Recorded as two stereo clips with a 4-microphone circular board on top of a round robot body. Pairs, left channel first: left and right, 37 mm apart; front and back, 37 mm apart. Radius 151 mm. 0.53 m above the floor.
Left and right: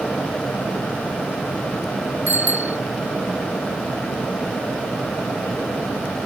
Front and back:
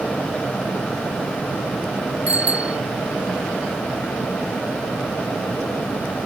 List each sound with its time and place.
2.3 s a bicycle bell: 125° right